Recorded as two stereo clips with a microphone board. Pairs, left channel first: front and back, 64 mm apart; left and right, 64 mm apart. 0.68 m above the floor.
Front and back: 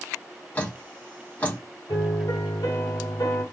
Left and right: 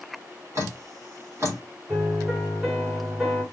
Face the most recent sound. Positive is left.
turn(degrees=-10)